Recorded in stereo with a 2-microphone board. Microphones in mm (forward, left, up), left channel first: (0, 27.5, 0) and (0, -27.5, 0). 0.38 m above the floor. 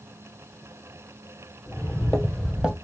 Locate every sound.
1.7 s footsteps: 35° left (ahead or behind), 0.8 m; by 2.8 s 15° right (ahead or behind), 0.8 m